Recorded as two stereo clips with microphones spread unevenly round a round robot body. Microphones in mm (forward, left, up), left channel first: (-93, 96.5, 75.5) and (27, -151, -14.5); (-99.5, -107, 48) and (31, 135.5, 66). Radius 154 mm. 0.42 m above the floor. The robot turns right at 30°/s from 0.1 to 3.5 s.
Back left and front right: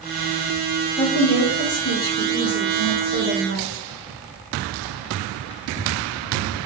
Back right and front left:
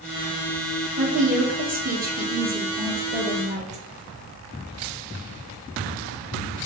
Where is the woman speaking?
25° left, 0.9 m; by 3.8 s 100° left, 0.9 m.